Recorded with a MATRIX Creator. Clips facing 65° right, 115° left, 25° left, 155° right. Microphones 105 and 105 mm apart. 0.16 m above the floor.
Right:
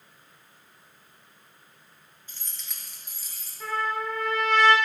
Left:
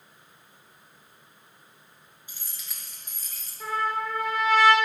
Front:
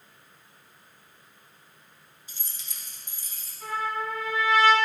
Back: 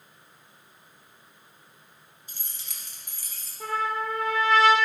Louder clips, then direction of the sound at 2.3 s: Even, even; 175° right.